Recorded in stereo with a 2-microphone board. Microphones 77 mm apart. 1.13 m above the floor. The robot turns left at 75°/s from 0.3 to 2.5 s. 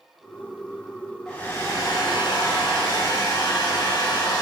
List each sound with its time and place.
1.3 s a hair dryer: 170° left, 2.5 m; by 4.4 s 75° left, 2.5 m